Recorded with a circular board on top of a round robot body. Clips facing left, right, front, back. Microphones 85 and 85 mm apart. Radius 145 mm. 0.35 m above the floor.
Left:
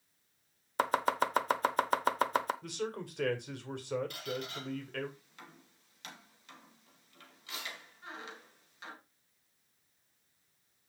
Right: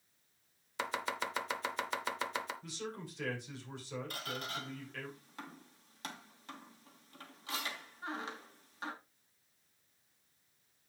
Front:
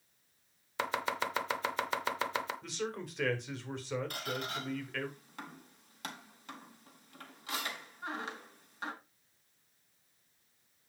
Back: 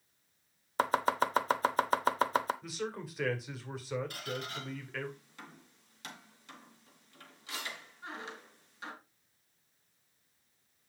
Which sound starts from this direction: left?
A man speaking, at 2.6 s.